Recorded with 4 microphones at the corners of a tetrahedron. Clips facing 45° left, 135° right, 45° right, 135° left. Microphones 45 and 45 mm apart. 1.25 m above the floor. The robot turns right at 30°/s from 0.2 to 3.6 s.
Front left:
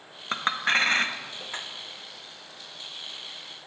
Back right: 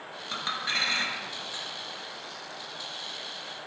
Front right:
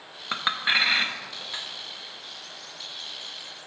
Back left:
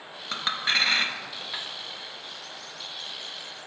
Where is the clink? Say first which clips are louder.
Front left 6 dB, front right 2 dB; 15° left, 0.7 m; by 1.6 s 55° left, 0.7 m.